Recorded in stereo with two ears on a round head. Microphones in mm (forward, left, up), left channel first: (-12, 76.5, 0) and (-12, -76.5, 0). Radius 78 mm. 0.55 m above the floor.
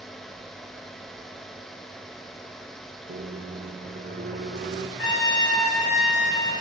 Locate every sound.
3.1 s a microwave: 55° right (ahead or behind), 1.6 m
5.0 s a trumpet: 65° left (ahead or behind), 7 m